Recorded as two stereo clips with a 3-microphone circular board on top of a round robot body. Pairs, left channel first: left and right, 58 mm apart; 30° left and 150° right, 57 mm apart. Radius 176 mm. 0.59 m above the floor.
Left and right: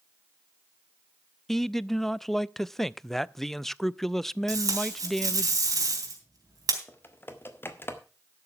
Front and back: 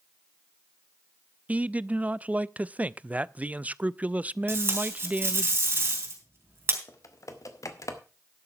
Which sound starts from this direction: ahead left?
Typing on a keyboard, at 6.9 s.